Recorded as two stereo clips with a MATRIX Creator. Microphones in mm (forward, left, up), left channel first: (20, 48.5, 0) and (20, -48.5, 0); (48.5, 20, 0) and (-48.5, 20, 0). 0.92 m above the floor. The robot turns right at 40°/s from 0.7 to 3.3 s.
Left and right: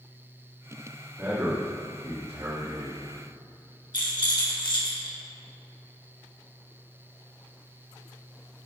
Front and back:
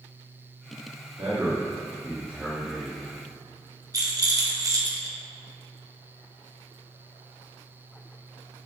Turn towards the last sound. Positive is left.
turn(degrees=130)